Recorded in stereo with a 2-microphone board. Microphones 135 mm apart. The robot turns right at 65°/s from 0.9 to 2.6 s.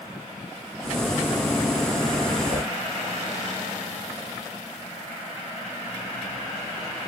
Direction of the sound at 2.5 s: 70° right (ahead or behind).